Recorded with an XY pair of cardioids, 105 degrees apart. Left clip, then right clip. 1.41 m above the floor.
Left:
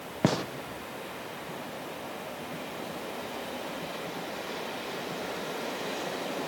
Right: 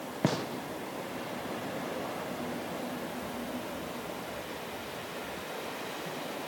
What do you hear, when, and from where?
0.2 s a gunshot: 20° left, 0.9 m